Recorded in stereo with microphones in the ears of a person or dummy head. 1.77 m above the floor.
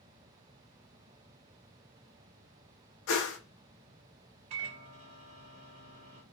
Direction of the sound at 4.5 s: 35° right (ahead or behind).